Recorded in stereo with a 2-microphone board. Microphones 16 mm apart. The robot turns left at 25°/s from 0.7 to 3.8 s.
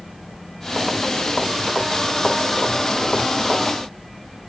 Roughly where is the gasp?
I don't hear a gasp.